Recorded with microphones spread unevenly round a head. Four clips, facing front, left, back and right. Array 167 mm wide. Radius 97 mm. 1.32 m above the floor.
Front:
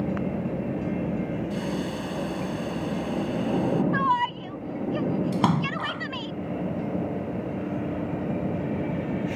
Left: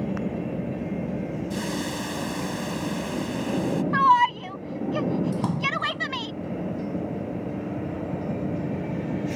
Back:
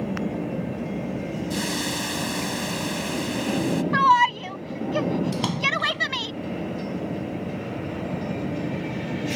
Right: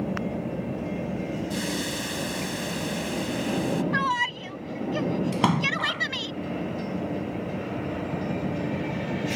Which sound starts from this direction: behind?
A hiss, at 1.5 s.